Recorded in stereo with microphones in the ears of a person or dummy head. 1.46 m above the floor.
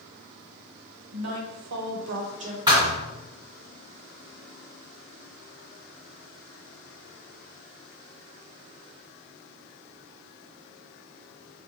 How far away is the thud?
About 1.6 m.